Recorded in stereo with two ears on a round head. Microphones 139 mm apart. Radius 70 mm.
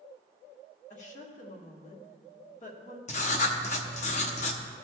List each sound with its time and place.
0.9 s a woman speaking: 50° left (ahead or behind), 1.2 m
3.1 s writing: 45° left (ahead or behind), 0.9 m